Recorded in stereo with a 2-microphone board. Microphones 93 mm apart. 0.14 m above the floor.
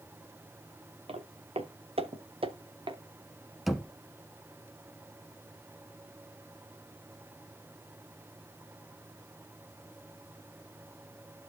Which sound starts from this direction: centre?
Knocking, at 3.7 s.